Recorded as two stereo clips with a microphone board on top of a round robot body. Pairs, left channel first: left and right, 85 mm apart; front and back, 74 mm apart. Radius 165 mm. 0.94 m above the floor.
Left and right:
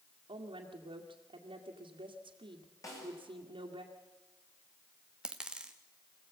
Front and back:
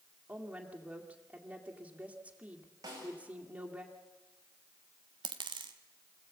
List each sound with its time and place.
0.3 s a woman speaking: 105° right, 2 m
2.8 s a snare drum: 140° left, 8 m
5.2 s a dropped coin: 170° right, 0.7 m